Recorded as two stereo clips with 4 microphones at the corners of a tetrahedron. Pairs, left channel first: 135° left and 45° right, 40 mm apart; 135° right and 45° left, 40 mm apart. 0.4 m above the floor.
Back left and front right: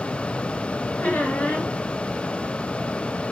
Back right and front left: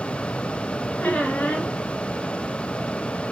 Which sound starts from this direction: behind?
A squeak, at 1.0 s.